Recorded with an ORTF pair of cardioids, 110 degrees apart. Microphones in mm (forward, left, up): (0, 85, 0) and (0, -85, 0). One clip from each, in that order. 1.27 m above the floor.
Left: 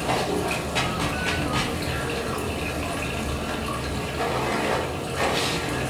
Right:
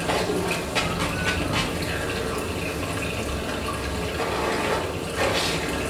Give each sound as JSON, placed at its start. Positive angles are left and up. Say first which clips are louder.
{"t": 0.0, "sound": "running water", "louder": "even", "azimuth_deg": -5, "distance_m": 1.7}